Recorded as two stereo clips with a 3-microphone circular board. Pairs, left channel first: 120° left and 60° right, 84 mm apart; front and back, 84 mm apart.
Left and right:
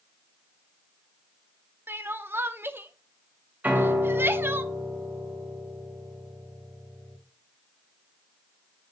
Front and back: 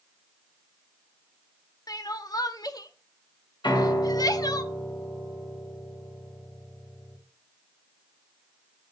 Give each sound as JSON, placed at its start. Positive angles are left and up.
{"t": 1.9, "sound": "crying", "azimuth_deg": -5, "distance_m": 0.9}
{"t": 3.6, "sound": "a piano", "azimuth_deg": 10, "distance_m": 3.0}